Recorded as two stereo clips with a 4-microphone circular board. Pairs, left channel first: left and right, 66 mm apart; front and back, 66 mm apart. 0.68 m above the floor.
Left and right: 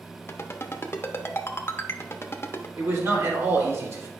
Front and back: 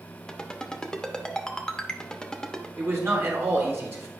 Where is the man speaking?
130° right, 2.5 m.